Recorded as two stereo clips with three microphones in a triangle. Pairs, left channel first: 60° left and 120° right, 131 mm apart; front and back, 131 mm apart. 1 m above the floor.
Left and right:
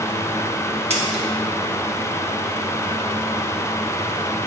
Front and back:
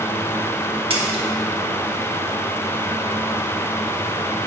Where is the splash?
145° right, 1.3 m.